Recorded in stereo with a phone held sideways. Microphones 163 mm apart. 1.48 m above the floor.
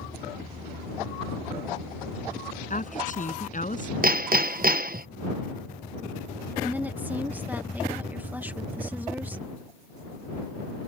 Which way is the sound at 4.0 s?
60° right (ahead or behind).